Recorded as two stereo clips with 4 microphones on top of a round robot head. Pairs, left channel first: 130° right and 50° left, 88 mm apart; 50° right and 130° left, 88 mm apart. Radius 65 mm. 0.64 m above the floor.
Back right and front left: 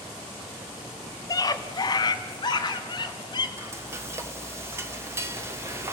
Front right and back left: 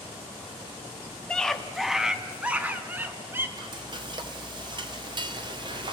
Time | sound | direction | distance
1.3 | a scream | 125° right | 1.5 m
3.6 | frying | 110° left | 1.7 m